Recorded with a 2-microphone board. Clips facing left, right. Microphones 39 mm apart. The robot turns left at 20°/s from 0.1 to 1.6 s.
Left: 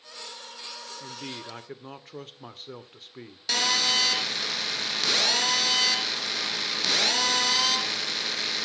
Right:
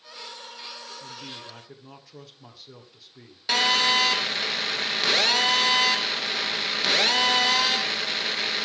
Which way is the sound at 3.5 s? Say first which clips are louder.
Right 4 dB; 20° right (ahead or behind).